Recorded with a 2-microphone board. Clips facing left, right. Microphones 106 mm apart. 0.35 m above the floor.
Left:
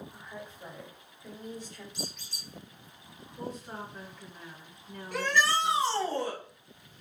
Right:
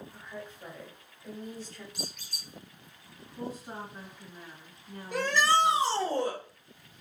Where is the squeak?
60° right (ahead or behind), 1.1 m.